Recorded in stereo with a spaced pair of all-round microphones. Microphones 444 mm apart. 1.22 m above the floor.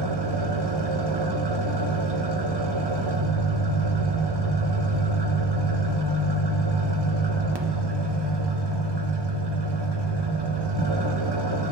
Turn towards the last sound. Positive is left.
turn(degrees=-65)  # may be behind; listen again after turning